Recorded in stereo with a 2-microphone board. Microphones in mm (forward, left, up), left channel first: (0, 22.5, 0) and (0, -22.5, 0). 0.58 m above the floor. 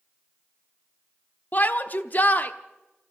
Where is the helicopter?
No helicopter in this recording.